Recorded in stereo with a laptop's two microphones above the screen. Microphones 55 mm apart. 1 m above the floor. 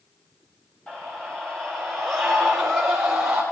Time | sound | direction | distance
0.9 | a scream | 15° left (ahead or behind) | 3 m